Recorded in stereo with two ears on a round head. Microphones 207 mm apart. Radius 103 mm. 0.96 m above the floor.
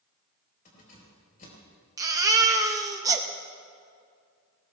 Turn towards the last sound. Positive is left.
turn(degrees=-15)  # may be behind; listen again after turning